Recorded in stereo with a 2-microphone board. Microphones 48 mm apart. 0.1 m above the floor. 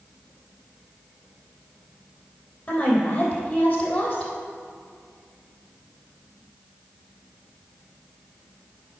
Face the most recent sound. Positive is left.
turn(degrees=25)  # may be behind; listen again after turning